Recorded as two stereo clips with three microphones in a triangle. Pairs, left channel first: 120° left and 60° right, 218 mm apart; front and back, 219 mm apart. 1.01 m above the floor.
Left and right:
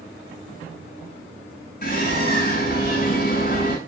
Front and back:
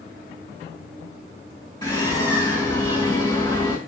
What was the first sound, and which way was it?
A bird, 70° left.